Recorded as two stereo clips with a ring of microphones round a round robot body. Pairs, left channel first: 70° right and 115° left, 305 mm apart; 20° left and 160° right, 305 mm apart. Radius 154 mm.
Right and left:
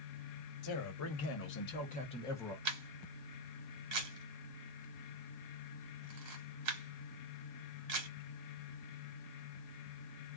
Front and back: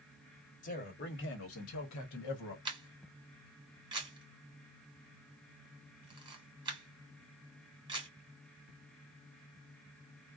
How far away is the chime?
No chime in this recording.